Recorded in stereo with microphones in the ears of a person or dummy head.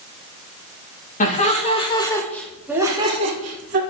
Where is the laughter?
45° left (ahead or behind), 2.5 m; by 3.8 s 45° right (ahead or behind), 2 m.